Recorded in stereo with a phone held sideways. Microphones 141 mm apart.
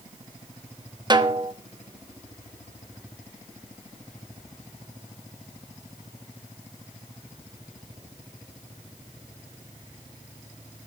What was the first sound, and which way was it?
A snare drum, 30° right (ahead or behind).